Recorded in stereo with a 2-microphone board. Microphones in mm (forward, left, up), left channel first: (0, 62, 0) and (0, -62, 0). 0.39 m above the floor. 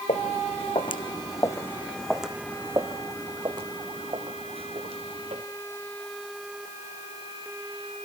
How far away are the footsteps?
About 1.7 m.